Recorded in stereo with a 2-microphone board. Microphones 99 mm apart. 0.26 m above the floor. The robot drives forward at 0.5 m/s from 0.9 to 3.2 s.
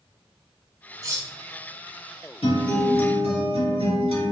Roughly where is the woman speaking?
No woman speaking in this recording.